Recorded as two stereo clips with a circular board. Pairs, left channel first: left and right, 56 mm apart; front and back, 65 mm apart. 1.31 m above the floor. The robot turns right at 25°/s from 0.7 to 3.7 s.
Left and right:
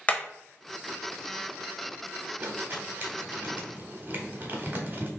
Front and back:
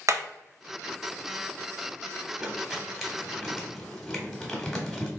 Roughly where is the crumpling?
Right.